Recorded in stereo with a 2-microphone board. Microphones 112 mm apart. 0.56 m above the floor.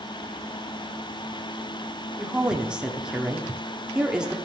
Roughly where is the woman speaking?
Centre.